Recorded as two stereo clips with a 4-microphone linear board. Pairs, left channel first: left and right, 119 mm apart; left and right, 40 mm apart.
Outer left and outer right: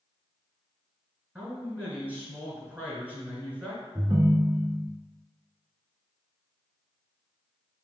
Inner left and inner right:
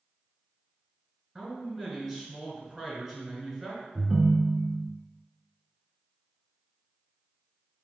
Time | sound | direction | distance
1.4 | a man speaking | 15° right (ahead or behind) | 1.5 m
4.0 | a ringtone | 30° right (ahead or behind) | 0.6 m